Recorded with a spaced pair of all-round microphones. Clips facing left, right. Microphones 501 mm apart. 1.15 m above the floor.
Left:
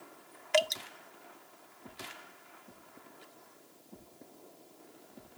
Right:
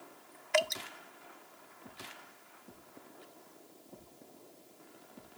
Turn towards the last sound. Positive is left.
turn(degrees=55)  # may be behind; listen again after turning